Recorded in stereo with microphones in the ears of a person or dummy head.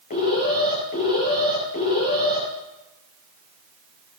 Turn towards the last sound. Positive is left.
turn(degrees=40)  # may be behind; listen again after turning